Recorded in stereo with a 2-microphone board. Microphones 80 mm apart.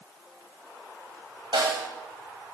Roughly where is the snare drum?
Right.